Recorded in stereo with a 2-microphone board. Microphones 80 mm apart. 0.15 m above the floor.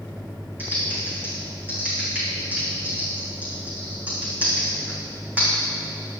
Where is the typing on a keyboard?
20° right (ahead or behind), 4.5 m.